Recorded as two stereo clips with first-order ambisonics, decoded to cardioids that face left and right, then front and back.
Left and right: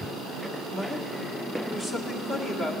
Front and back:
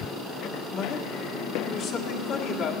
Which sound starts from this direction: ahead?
A man speaking, at 0.7 s.